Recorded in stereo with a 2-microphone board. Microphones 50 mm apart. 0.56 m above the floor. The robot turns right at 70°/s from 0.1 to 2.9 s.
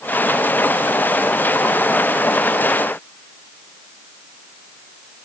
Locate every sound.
Only background noise.